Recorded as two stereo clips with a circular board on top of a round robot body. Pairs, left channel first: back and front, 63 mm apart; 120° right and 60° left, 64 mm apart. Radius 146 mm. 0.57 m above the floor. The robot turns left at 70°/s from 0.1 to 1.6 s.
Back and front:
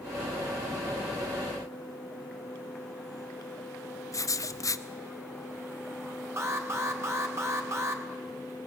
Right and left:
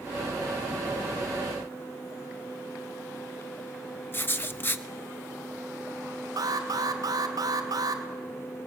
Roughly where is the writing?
Behind.